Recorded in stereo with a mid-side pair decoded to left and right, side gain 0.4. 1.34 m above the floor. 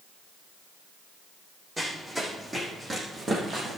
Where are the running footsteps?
20° right, 4.5 m; by 3.8 s 55° right, 3.5 m.